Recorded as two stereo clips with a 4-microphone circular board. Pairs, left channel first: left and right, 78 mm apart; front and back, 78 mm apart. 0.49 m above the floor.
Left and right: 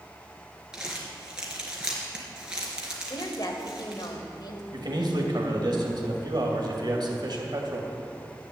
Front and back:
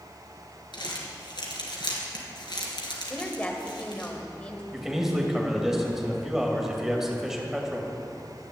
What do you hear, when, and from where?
0.7 s crumpling: 10° right, 3 m
3.1 s a woman speaking: 70° left, 2 m
4.7 s a man speaking: 95° right, 2.5 m